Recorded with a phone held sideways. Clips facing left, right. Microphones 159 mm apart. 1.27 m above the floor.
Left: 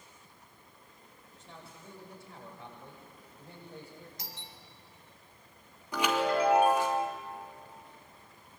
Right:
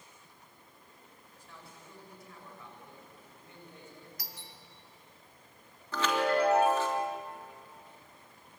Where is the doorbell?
25° left (ahead or behind), 2.5 m.